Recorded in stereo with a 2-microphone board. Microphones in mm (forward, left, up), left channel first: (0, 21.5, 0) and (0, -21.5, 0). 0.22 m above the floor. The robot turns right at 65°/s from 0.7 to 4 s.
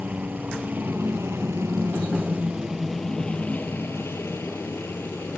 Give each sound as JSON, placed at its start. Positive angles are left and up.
{"t": 0.0, "sound": "a helicopter", "side_deg": -40}